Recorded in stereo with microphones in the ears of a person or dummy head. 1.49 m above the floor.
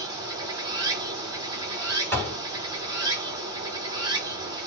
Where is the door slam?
10° left (ahead or behind), 2.5 m.